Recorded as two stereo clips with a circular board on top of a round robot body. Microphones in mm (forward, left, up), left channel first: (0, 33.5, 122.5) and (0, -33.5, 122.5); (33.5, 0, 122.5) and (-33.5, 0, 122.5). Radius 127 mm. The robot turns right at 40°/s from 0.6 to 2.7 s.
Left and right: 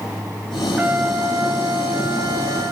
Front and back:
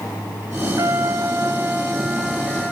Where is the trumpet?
150° right, 3 m; by 2.7 s 70° right, 3 m.